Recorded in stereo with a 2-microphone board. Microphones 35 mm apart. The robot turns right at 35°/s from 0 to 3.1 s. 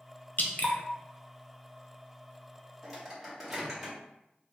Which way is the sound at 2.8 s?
Centre (ahead or behind).